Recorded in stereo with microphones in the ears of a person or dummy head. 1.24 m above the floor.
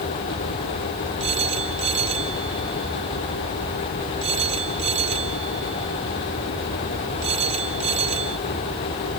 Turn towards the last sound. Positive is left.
turn(degrees=-35)  # may be behind; listen again after turning